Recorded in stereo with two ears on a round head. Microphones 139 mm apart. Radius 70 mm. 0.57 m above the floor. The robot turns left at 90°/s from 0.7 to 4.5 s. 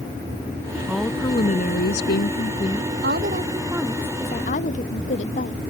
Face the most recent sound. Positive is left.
turn(degrees=125)